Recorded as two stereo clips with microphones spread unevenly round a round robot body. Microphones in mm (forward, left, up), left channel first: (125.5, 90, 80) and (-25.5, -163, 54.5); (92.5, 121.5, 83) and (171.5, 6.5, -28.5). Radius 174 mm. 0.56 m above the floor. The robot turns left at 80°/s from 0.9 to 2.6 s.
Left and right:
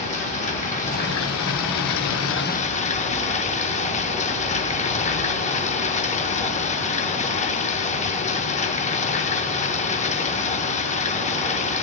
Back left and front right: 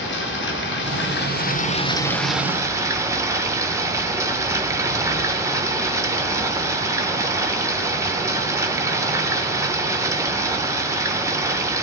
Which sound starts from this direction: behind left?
Running water, at 0.0 s.